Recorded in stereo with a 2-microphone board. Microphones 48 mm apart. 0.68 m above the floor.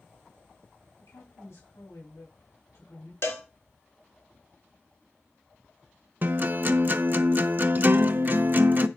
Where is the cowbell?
65° left (ahead or behind), 2 m.